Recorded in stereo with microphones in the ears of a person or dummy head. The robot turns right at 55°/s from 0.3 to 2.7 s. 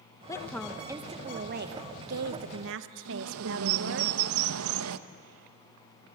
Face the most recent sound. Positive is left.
turn(degrees=-80)